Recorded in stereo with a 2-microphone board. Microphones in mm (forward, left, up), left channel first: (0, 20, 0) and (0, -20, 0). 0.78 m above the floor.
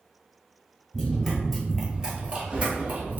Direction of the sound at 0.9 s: 10° left (ahead or behind).